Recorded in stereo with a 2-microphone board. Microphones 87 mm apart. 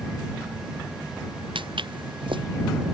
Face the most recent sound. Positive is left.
turn(degrees=-70)  # may be behind; listen again after turning